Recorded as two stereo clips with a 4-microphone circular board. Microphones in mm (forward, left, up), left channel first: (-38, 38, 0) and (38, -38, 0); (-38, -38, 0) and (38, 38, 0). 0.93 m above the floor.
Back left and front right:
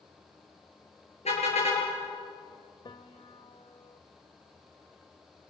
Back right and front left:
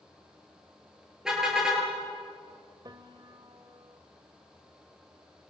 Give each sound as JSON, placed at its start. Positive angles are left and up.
{"t": 1.2, "sound": "a car horn", "azimuth_deg": 130, "distance_m": 8.0}
{"t": 2.9, "sound": "a piano", "azimuth_deg": 95, "distance_m": 1.4}